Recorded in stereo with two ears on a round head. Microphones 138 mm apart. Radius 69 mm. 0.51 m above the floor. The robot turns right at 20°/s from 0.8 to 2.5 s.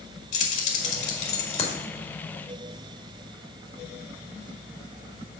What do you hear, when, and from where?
0.3 s keys jangling: 50° left (ahead or behind), 1.6 m; by 1.8 s 35° left (ahead or behind), 1.6 m